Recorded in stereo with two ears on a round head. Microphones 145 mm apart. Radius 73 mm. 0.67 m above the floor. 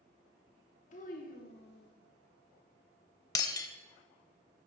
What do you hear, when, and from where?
0.9 s a child speaking: 45° left (ahead or behind), 1.1 m; by 1.9 s 70° left (ahead or behind), 1.4 m
3.4 s breaking glass: 25° left (ahead or behind), 0.6 m